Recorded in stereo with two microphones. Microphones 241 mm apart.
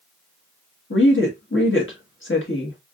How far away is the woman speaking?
About 1.5 m.